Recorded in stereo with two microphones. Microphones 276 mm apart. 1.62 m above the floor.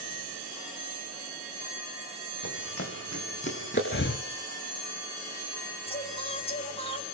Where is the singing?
20° left (ahead or behind), 3.5 m.